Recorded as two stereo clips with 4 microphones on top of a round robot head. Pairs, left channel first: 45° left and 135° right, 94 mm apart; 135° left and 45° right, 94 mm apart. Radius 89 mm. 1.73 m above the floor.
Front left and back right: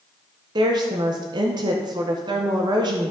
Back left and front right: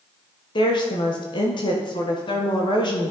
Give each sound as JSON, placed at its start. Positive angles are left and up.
{"t": 0.6, "sound": "a woman speaking", "azimuth_deg": 175, "distance_m": 1.5}